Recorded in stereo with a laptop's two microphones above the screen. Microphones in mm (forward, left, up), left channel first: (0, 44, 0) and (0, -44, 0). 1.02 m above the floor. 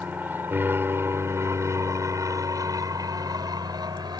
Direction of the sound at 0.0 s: 20° right (ahead or behind).